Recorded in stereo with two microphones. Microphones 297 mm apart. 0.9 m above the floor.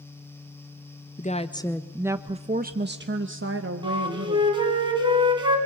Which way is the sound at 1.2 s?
25° left (ahead or behind).